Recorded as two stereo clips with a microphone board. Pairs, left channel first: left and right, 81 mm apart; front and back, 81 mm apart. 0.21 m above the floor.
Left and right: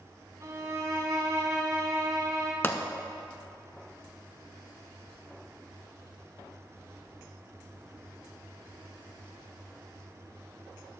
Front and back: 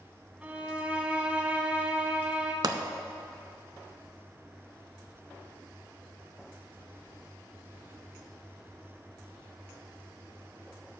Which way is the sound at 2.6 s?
150° left.